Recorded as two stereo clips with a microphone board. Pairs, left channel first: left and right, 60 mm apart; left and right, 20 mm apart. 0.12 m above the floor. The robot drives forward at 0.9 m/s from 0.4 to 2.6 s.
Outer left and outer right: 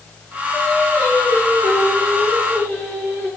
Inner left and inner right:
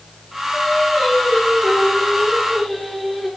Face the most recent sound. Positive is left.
turn(degrees=30)  # may be behind; listen again after turning